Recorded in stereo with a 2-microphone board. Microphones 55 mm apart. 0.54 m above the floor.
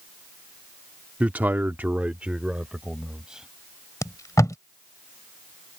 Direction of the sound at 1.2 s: 25° right (ahead or behind).